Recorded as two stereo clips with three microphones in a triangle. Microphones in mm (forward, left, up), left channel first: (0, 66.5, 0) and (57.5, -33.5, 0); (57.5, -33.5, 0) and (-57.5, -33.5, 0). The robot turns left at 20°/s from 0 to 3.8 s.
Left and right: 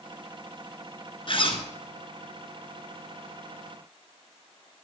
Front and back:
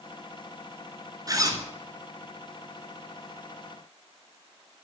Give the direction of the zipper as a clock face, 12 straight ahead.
8 o'clock.